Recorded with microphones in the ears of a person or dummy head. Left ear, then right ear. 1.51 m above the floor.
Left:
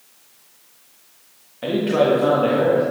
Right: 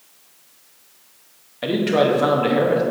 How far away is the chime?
No chime in this recording.